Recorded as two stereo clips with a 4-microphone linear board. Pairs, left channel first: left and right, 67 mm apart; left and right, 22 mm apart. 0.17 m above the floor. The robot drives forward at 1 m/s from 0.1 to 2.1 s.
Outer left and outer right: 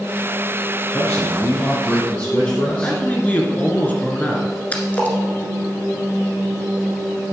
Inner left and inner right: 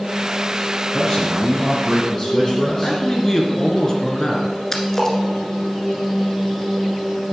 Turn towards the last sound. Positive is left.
turn(degrees=25)  # may be behind; listen again after turning